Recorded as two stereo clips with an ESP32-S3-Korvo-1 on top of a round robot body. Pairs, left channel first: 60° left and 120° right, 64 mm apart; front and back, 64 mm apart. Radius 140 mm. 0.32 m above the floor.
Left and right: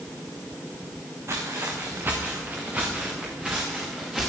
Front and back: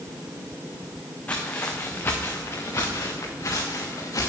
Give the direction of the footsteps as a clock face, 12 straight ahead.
2 o'clock.